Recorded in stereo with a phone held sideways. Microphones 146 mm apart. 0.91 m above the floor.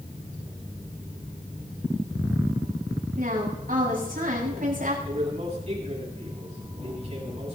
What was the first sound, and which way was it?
A woman speaking, 75° right (ahead or behind).